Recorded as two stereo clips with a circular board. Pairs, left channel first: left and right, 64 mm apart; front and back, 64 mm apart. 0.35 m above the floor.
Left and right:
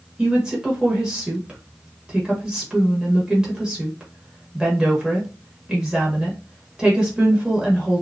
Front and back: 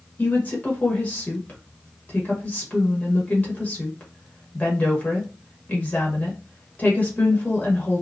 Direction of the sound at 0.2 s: 25° right.